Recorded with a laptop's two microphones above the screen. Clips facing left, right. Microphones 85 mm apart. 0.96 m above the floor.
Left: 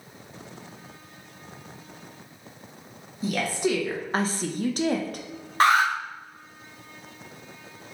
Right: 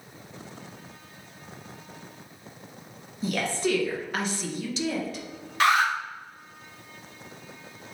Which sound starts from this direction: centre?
A woman speaking, at 3.2 s.